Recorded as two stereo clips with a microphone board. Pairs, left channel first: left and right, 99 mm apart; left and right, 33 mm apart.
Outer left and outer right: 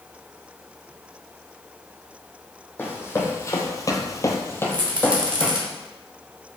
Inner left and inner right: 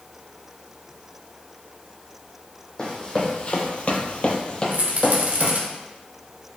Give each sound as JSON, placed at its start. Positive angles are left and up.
{"t": 2.8, "sound": "running footsteps", "side_deg": 20, "distance_m": 1.2}
{"t": 4.7, "sound": "a rattle", "side_deg": -50, "distance_m": 0.9}